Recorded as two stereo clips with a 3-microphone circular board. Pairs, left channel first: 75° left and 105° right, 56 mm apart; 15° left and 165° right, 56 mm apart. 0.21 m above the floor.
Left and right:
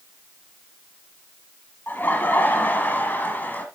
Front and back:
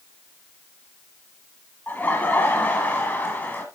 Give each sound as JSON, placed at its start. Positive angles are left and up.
{"t": 1.9, "sound": "laughter", "azimuth_deg": 50, "distance_m": 1.4}